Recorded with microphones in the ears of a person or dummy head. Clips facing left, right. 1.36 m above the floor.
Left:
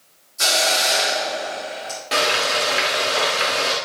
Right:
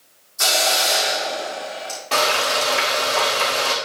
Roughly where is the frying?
Centre.